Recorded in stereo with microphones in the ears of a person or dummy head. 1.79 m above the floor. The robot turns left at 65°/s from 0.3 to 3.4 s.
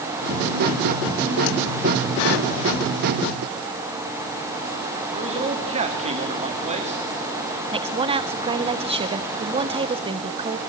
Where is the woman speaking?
30° right (ahead or behind), 1.6 m.